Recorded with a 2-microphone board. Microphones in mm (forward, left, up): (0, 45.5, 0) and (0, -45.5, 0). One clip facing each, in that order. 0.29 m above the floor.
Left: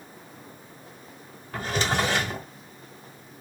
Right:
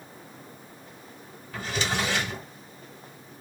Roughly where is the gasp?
I don't hear a gasp.